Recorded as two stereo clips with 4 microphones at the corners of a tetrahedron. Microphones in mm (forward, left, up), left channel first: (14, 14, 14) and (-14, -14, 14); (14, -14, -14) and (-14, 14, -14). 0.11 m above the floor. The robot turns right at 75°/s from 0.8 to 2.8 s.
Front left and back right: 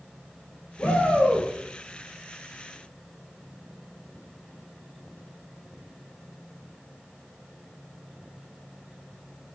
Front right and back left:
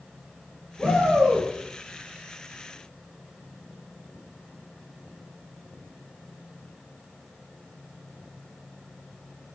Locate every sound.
0.8 s a shout: 15° left, 2.5 m; by 1.5 s 65° left, 2.5 m